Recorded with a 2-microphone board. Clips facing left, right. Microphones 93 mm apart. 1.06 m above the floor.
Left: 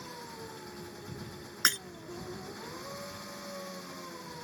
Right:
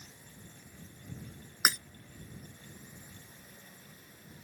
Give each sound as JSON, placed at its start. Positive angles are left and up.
{"t": 0.0, "sound": "an engine running", "side_deg": 85}
{"t": 1.6, "sound": "breaking glass", "side_deg": -5}